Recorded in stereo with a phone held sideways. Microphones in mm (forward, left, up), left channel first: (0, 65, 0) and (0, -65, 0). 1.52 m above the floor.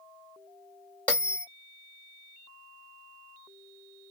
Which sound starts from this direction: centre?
A bell, at 1.1 s.